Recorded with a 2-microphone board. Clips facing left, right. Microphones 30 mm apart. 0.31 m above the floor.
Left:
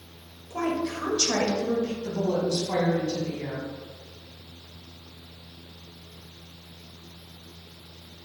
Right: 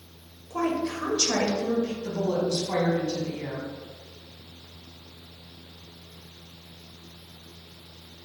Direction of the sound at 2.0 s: 5° right (ahead or behind).